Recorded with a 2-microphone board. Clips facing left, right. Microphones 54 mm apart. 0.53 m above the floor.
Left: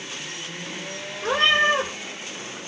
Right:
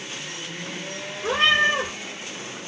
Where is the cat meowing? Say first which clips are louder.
Even; 55° left (ahead or behind), 1.9 m.